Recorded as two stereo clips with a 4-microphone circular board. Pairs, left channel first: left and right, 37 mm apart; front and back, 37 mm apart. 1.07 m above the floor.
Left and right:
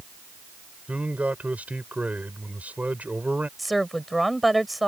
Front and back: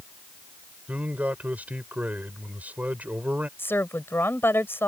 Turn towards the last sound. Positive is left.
turn(degrees=0)